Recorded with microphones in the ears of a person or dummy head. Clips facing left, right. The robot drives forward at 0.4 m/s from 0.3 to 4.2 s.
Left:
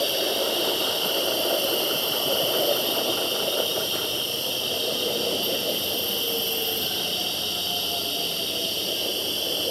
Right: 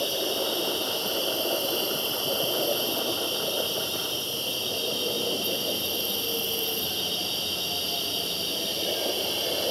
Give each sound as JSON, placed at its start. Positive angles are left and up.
{"t": 0.0, "sound": "an insect", "side_deg": 40, "distance_m": 8.5}